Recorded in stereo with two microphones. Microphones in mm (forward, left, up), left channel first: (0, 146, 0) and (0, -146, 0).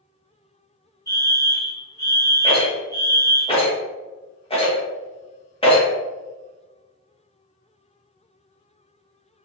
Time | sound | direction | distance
1.1 | a fire alarm | 10° left (ahead or behind) | 1.0 m
2.4 | a rattle | 20° left (ahead or behind) | 0.9 m